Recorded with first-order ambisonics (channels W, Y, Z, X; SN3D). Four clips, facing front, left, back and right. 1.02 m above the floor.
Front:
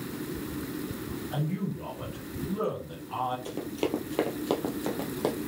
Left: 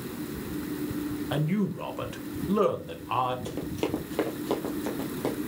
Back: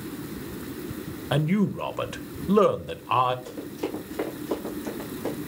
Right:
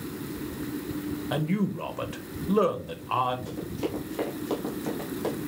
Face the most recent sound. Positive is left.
turn(degrees=5)